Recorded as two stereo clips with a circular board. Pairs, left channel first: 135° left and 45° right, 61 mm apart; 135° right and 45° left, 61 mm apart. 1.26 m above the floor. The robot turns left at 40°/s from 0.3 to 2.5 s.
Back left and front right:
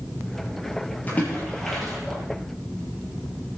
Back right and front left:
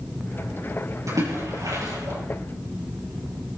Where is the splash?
75° left, 8.5 m; by 2.2 s 30° left, 8.5 m.